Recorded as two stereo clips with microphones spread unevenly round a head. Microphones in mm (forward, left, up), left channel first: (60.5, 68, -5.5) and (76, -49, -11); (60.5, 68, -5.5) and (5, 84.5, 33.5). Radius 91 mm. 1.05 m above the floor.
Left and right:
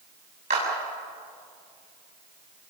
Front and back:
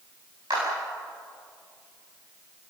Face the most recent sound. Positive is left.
turn(degrees=-135)